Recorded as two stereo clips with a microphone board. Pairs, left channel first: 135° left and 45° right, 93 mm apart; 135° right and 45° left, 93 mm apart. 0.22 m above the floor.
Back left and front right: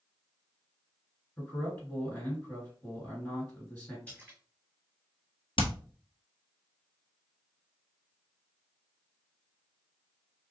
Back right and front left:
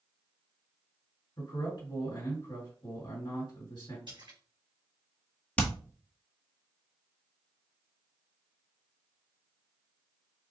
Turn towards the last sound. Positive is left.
turn(degrees=150)